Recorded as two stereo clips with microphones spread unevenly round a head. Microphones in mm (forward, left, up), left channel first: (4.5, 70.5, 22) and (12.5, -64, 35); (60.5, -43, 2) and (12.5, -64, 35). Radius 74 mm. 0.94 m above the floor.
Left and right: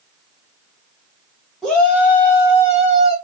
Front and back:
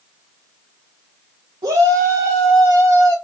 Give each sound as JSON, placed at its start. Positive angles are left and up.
{"t": 1.6, "sound": "a shout", "azimuth_deg": 180, "distance_m": 1.8}